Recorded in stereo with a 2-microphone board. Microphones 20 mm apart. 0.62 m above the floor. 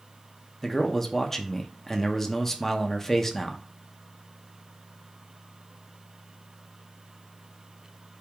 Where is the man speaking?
20° left (ahead or behind), 0.6 m.